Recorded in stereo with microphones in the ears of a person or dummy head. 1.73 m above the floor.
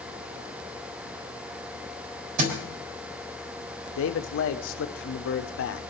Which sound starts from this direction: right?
A thud, at 2.4 s.